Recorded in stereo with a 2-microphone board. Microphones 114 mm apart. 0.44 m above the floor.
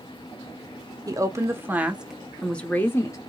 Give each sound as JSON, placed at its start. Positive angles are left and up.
{"t": 1.1, "sound": "a woman speaking", "side_deg": -30, "distance_m": 1.4}